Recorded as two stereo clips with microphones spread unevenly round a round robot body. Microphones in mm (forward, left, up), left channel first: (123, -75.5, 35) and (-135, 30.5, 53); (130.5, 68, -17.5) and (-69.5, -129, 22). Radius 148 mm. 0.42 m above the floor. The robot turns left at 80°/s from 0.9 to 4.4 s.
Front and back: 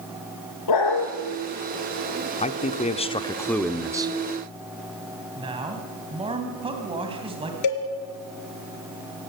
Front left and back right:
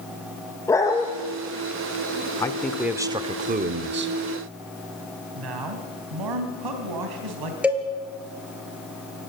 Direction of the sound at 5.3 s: 130° right.